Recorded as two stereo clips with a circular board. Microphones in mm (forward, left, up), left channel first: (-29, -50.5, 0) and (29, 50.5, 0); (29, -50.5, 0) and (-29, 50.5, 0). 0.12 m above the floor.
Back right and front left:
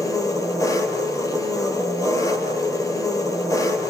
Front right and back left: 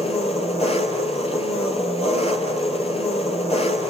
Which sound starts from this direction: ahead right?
An engine running, at 0.0 s.